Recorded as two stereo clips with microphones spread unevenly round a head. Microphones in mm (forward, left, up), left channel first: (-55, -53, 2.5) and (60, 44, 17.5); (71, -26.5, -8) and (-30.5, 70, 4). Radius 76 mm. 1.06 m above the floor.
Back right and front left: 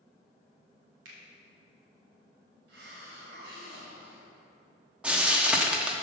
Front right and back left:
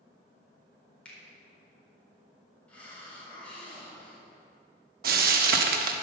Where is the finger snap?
40° left, 4 m.